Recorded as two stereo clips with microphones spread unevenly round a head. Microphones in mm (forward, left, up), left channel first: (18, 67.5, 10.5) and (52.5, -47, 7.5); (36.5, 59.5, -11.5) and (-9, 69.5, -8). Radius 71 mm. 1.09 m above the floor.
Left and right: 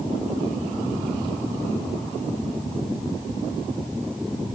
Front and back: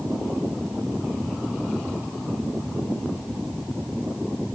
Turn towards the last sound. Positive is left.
No sound to turn to.